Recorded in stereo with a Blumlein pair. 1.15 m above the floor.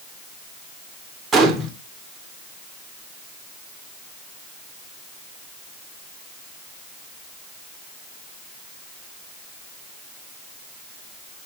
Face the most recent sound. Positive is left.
turn(degrees=-15)